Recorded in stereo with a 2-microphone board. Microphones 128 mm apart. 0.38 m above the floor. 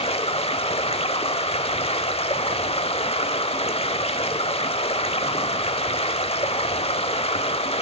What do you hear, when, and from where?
0.0 s running water: 50° left (ahead or behind), 0.7 m